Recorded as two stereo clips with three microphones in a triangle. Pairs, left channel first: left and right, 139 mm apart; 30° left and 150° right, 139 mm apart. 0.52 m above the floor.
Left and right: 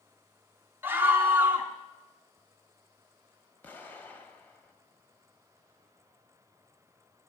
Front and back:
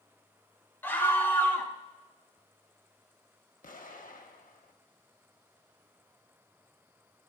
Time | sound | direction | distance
0.8 | a scream | 30° right | 0.8 m
3.6 | an explosion | 15° left | 0.8 m